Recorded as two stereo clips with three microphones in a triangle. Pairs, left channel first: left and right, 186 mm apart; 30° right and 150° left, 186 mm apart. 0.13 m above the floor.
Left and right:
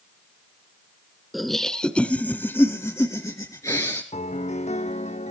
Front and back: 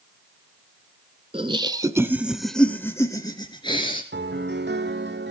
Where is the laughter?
Straight behind, 1.3 m; by 4.0 s 20° left, 1.9 m.